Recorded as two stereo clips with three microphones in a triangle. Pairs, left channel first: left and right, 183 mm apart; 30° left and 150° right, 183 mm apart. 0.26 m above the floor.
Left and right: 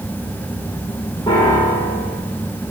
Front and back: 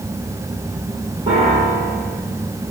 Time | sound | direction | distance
1.3 | a piano | 155° left | 6 m